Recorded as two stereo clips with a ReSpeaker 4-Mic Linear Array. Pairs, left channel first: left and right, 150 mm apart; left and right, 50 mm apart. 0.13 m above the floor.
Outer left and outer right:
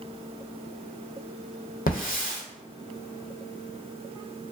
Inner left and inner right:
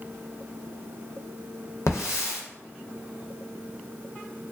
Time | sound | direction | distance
1.9 | a hiss | 75° left (ahead or behind) | 0.9 m